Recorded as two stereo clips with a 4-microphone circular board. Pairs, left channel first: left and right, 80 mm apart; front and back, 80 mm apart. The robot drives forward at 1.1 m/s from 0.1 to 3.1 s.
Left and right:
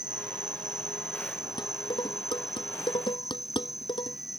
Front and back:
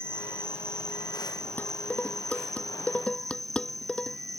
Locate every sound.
0.0 s an insect: 120° right; by 4.4 s 130° right
1.6 s dishes clattering: 70° left; by 4.2 s 75° left